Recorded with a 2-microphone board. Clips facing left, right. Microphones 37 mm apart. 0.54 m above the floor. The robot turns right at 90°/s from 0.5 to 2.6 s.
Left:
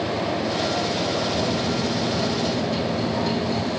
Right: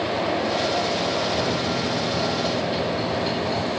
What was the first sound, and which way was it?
A microwave, 140° right.